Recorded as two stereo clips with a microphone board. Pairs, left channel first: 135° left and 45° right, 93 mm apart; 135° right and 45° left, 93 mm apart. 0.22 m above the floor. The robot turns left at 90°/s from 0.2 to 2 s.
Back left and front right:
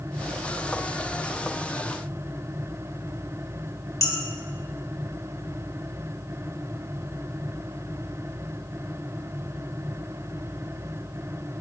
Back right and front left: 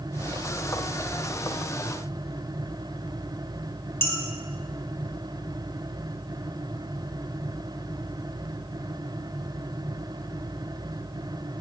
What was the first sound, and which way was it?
Dishes clattering, 170° left.